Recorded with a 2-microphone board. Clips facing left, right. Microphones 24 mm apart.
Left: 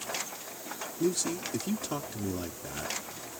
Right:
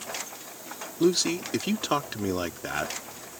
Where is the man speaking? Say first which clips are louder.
Right 7 dB; 60° right (ahead or behind).